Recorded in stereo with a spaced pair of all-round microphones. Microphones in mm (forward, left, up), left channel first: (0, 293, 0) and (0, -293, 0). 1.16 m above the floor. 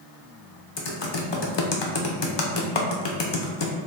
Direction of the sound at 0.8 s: 50° left (ahead or behind).